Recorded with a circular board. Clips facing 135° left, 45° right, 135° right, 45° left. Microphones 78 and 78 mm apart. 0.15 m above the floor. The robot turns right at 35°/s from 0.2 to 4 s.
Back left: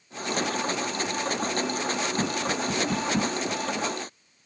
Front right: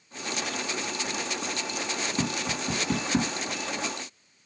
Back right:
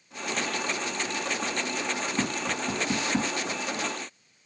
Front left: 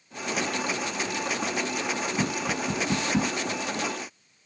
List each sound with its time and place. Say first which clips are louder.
2.2 s tapping: back left 3 dB, front left 1 dB; 95° right, 1.6 m; by 3.3 s 55° right, 1.6 m